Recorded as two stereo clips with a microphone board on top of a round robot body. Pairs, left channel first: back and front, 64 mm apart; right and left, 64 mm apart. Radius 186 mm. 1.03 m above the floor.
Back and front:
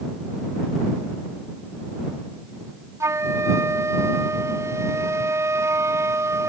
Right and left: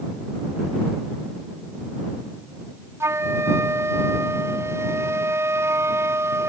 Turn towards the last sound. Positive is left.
turn(degrees=45)